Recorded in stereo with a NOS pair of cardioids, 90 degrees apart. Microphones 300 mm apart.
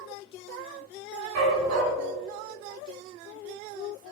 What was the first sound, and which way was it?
A dog barking, 70° right.